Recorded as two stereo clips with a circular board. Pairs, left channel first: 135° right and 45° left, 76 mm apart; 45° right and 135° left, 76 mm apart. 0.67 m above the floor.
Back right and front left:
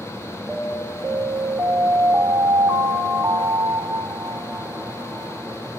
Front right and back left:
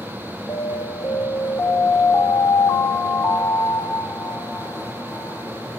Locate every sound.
0.5 s an alarm: 15° right, 1.7 m